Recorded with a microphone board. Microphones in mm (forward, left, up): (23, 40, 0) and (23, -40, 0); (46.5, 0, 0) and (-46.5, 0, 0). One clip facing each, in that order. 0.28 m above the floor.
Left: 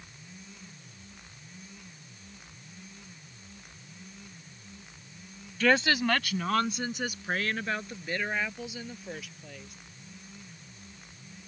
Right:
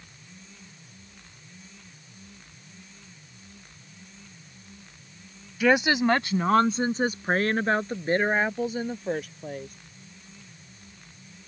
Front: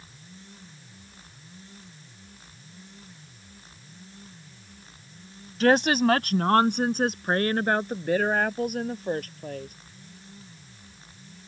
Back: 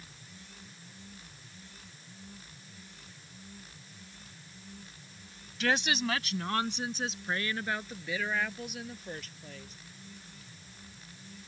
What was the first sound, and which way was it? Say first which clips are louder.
A woman speaking: right 4 dB, front 10 dB; 15° right.